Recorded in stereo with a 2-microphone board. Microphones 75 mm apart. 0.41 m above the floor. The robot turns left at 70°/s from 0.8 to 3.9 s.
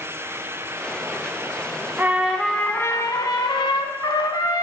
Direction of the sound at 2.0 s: 155° right.